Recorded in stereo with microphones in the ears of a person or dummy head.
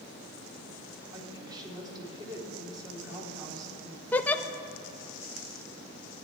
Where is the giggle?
10° left (ahead or behind), 0.5 m.